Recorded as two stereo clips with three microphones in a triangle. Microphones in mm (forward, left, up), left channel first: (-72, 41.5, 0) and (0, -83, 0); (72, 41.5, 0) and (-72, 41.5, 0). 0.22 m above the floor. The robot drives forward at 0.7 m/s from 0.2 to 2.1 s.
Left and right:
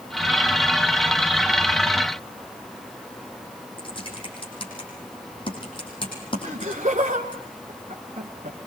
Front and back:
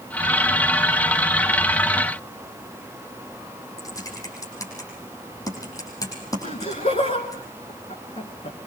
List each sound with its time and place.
3.8 s typing on a keyboard: 65° left, 6 m
6.4 s laughter: 30° right, 2.5 m